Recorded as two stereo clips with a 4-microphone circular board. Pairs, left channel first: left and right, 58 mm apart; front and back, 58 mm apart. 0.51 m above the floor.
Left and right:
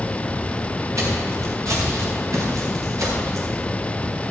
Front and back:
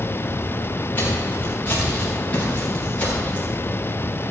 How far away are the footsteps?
About 7 m.